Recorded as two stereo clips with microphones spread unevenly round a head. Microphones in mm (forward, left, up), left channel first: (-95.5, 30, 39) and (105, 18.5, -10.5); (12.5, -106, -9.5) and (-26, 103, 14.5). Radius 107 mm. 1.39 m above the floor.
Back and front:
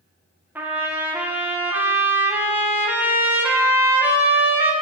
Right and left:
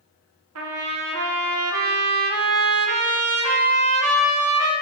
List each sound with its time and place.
0.6 s a trumpet: 75° left, 1.1 m